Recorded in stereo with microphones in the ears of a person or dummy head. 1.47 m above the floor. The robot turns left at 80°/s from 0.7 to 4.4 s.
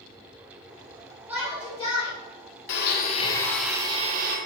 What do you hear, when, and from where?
1.3 s a shout: 165° right, 2.5 m; by 2.1 s 125° left, 2.5 m
2.7 s a blender: 70° left, 1.4 m; by 4.4 s 60° right, 1.4 m